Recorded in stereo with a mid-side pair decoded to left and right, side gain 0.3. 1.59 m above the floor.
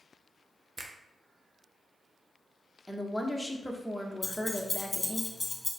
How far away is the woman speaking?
About 1.1 m.